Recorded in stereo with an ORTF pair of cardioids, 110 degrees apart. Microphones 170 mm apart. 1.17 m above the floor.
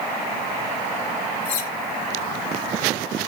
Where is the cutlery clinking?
65° left, 2.5 m.